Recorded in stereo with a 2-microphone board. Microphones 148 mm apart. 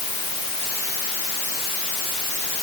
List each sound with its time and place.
Only background noise.